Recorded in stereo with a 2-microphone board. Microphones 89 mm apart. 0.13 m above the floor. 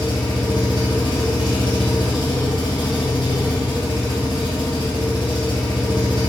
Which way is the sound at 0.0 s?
70° left (ahead or behind).